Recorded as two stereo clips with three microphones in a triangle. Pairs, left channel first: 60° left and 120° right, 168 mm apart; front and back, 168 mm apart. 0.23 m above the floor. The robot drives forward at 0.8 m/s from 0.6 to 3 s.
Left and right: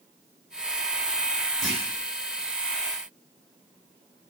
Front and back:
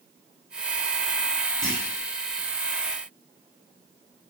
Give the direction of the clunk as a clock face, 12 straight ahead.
1 o'clock.